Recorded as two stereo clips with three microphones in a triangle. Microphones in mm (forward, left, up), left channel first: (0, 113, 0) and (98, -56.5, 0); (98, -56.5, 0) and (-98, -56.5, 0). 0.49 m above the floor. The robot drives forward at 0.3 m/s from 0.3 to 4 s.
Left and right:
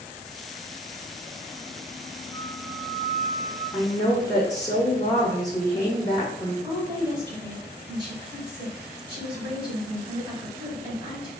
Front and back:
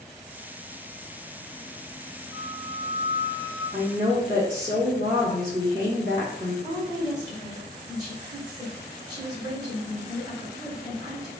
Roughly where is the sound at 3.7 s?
Behind.